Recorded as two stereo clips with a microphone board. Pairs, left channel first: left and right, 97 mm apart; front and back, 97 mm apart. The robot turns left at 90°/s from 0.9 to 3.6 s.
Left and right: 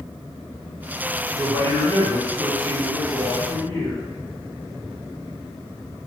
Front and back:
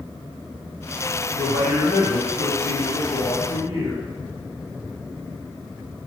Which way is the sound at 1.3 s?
20° right.